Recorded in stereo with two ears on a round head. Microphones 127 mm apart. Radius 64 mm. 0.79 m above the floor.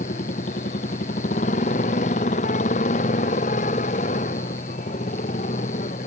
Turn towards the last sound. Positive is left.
turn(degrees=50)  # may be behind; listen again after turning